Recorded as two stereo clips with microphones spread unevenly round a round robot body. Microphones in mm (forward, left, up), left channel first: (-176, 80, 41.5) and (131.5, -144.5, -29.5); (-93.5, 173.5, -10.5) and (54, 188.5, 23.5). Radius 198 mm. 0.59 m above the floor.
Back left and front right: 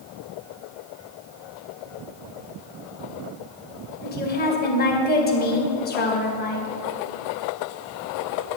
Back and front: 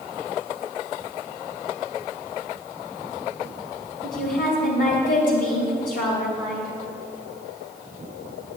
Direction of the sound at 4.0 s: 145° right.